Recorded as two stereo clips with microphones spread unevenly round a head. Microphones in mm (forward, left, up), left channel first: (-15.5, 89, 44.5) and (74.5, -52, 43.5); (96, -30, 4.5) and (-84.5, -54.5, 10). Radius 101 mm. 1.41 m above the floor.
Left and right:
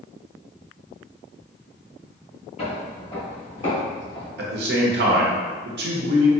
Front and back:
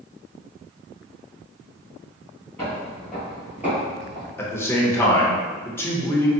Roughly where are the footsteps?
Left.